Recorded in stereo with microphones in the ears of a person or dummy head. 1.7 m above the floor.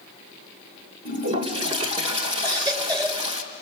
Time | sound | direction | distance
1.1 | a toilet flushing | 35° right (ahead or behind) | 2.5 m
2.4 | a baby crying | 25° right (ahead or behind) | 4 m